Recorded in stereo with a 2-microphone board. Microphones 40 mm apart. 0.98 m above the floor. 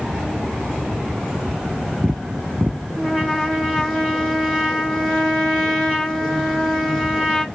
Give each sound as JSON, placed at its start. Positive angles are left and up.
{"t": 3.0, "sound": "a trumpet", "side_deg": 10, "distance_m": 1.4}